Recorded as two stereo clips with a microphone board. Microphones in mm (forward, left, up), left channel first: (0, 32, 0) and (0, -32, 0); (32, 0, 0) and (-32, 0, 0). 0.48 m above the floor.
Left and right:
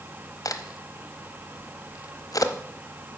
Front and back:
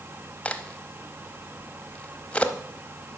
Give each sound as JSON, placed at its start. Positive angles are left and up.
{"t": 0.5, "sound": "a crack", "azimuth_deg": 70, "distance_m": 0.7}